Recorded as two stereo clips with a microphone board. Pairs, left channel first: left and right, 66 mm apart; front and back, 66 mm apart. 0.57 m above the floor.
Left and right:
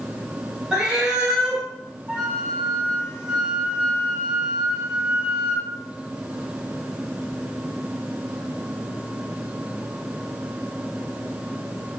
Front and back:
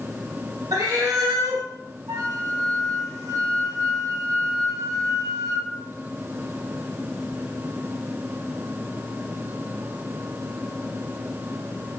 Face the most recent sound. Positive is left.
turn(degrees=-160)